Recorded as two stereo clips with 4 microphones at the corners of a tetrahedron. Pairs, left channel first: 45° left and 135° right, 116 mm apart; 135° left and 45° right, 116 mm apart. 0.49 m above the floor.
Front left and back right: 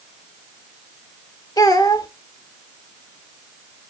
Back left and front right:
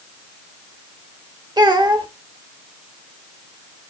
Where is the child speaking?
5° right, 1.1 m.